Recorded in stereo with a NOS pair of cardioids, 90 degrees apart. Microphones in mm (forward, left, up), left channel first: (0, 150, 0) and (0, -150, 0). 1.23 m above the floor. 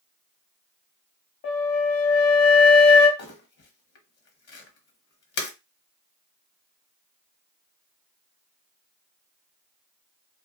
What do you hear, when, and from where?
1.4 s a flute: 50° left, 1.0 m
3.2 s crumpling: 55° left, 1.0 m